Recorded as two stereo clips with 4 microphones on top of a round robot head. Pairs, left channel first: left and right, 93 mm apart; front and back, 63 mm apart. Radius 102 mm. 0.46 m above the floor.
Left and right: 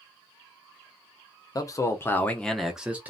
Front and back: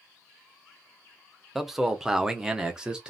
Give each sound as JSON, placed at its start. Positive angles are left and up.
{"t": 1.6, "sound": "a man speaking", "azimuth_deg": 95, "distance_m": 0.9}